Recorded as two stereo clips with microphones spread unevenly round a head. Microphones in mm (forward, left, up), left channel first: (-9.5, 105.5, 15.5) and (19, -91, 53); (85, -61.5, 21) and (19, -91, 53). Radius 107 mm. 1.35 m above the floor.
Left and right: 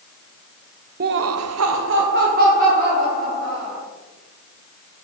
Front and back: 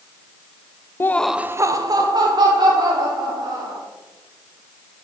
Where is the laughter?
30° right, 0.6 m; by 3.8 s 140° right, 3 m.